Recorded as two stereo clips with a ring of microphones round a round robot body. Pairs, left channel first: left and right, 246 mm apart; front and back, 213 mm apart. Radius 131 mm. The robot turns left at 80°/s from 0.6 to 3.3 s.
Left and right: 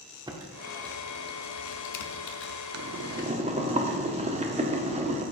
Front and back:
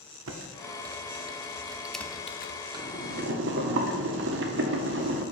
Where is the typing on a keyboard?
165° right, 0.8 m; by 2.6 s 35° left, 0.8 m.